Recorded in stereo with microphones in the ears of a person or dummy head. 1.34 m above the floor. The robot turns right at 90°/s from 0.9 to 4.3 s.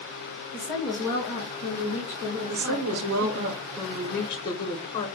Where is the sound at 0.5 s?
10° left, 1.8 m; by 3.5 s 115° right, 1.8 m.